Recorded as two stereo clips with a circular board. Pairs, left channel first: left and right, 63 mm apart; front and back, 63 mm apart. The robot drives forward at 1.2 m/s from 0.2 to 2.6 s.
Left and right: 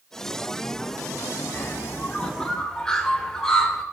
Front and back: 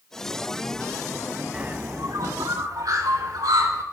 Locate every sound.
1.5 s a bird: 115° left, 0.5 m; by 3.8 s 170° left, 1.5 m